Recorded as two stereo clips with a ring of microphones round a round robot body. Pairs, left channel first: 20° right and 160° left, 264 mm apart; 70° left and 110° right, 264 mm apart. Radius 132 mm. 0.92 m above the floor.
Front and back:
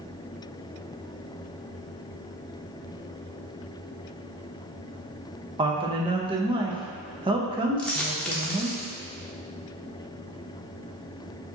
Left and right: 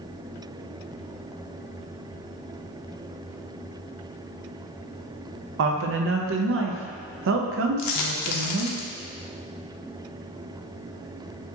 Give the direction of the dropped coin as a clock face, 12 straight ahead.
10 o'clock.